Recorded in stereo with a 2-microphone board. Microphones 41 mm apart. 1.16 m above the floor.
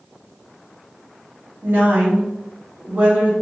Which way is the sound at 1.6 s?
65° right (ahead or behind).